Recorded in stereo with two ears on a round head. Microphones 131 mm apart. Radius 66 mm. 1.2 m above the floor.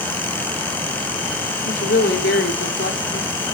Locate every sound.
1.6 s a woman speaking: 75° left (ahead or behind), 3 m